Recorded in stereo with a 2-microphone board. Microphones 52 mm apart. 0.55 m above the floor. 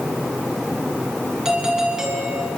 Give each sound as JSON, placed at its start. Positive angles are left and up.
{"t": 1.4, "sound": "a doorbell", "side_deg": -10, "distance_m": 6.5}